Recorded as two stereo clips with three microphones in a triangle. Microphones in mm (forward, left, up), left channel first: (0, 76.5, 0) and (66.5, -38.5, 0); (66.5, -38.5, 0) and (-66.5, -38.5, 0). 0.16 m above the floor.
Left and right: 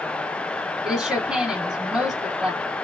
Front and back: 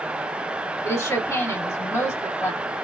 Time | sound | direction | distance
0.8 | a woman speaking | 20° left | 1.0 m